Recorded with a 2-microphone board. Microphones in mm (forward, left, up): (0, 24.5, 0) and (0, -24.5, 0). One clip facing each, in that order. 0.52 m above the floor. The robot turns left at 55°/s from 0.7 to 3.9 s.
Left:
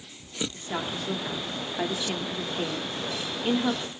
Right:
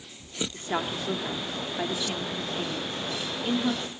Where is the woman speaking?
20° right (ahead or behind), 1.1 m; by 3.9 s 20° left (ahead or behind), 1.1 m.